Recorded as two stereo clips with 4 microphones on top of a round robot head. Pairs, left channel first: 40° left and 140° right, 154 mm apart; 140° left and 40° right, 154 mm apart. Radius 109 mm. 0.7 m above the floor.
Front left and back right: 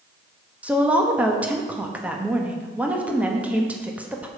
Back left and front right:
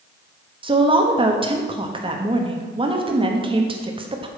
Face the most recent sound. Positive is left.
turn(degrees=-65)